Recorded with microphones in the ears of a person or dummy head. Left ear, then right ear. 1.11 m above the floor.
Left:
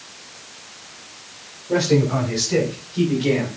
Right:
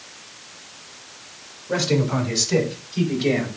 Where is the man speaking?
40° right (ahead or behind), 6.5 m; by 3.6 s 25° right (ahead or behind), 4.5 m.